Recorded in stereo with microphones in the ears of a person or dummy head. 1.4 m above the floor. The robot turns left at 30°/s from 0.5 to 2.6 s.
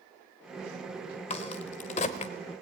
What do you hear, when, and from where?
1.3 s a crack: 35° left (ahead or behind), 1.3 m